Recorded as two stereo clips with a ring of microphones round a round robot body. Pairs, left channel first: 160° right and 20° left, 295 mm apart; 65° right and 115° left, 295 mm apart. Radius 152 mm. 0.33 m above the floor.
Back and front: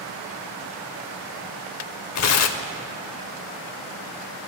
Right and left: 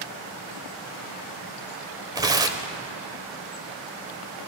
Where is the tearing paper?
170° right, 0.6 m.